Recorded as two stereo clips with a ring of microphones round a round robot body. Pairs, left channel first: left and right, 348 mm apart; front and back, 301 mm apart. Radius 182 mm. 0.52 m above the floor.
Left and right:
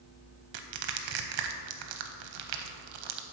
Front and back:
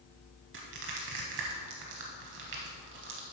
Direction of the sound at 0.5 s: 120° right.